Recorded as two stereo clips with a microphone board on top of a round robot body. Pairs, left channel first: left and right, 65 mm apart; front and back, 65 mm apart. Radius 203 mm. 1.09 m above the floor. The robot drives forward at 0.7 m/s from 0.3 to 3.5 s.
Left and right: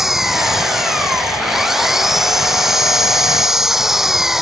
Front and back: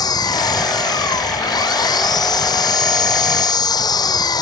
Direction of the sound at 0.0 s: 5° right.